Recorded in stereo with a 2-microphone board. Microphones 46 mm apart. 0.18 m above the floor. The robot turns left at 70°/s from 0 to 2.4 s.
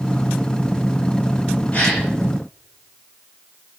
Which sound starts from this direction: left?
A gasp, at 1.7 s.